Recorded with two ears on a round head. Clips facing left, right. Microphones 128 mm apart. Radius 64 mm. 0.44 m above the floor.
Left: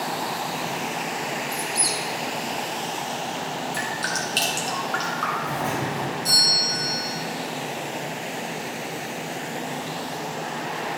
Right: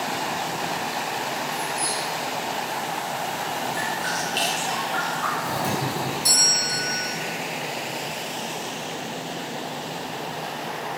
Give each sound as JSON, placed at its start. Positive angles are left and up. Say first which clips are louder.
{"t": 1.5, "sound": "a squeak", "louder": "right 1 dB", "side_deg": 45, "distance_m": 0.8}
{"t": 3.7, "sound": "dripping", "louder": "right 1 dB", "side_deg": 65, "distance_m": 2.0}
{"t": 5.4, "sound": "a doorbell", "louder": "right 1 dB", "side_deg": -40, "distance_m": 2.0}